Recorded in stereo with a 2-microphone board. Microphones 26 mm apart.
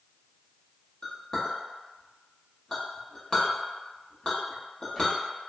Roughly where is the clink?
Left.